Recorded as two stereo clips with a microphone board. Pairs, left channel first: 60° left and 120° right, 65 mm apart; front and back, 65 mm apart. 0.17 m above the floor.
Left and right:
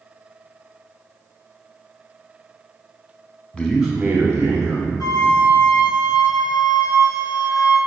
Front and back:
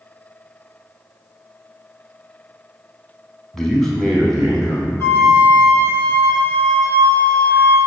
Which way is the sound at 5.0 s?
50° left.